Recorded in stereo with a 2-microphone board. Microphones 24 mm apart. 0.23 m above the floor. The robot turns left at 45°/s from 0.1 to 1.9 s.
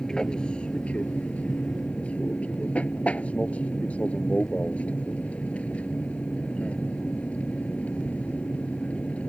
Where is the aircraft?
150° left; by 9.3 s 70° left.